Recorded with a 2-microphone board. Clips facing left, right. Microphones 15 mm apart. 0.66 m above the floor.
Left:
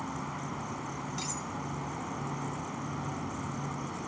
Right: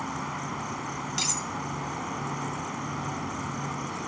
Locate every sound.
0.0 s an insect: 30° right (ahead or behind)
1.2 s cutlery clinking: 55° right (ahead or behind)